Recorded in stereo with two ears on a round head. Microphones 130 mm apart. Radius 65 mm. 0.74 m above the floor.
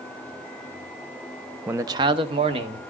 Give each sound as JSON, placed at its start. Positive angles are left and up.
{"t": 1.7, "sound": "a man speaking", "side_deg": -10, "distance_m": 0.6}